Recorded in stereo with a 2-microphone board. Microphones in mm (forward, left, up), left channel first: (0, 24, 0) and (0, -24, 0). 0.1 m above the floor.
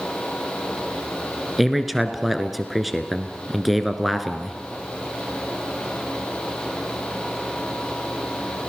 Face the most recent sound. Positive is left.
turn(degrees=-5)  # may be behind; listen again after turning